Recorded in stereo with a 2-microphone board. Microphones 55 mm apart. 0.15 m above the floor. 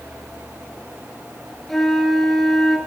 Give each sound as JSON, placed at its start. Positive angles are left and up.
{"t": 1.7, "sound": "a flute", "side_deg": 5, "distance_m": 2.5}